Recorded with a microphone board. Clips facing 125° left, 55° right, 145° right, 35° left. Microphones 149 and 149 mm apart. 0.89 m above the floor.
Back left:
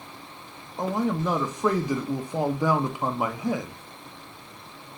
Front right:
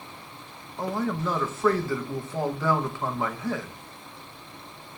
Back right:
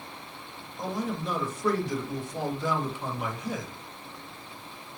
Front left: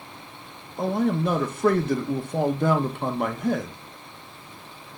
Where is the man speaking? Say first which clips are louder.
Back left 2 dB, front left 9 dB; 50° left, 0.6 m.